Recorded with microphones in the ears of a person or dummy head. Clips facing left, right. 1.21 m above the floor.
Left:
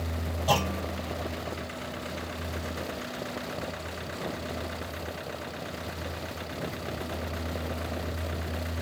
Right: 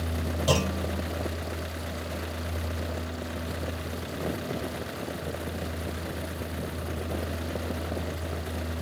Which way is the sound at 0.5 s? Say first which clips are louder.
Right 1 dB; 55° right (ahead or behind).